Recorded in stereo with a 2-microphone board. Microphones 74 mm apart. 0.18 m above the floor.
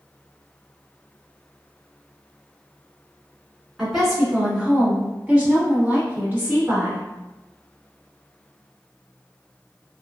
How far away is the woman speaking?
About 1.5 m.